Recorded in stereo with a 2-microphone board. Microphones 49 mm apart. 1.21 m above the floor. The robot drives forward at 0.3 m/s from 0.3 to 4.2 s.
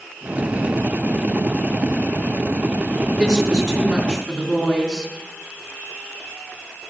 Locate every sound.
3.1 s a woman speaking: 10° left (ahead or behind), 3 m